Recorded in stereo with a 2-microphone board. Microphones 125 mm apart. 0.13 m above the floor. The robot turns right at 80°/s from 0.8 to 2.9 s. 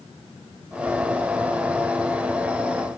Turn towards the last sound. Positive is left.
No sound to turn to.